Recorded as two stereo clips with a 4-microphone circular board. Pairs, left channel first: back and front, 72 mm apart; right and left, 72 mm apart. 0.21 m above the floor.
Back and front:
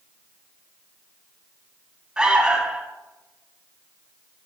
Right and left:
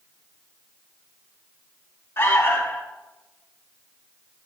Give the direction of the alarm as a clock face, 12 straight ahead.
2 o'clock.